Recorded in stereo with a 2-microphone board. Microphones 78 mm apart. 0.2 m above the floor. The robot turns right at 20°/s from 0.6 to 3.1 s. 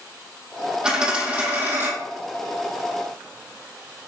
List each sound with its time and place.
0.8 s a dropped coin: 10° right (ahead or behind), 2.5 m; by 1.9 s 30° right (ahead or behind), 2.5 m